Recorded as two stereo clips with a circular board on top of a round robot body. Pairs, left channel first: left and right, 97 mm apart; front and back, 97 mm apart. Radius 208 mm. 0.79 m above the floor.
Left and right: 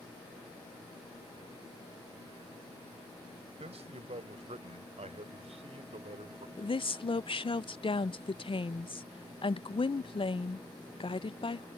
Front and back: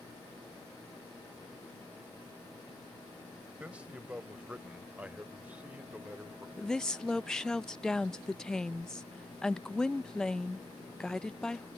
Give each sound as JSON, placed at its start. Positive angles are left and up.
{"t": 3.6, "sound": "a man speaking", "azimuth_deg": -100}
{"t": 6.6, "sound": "a woman speaking", "azimuth_deg": 85}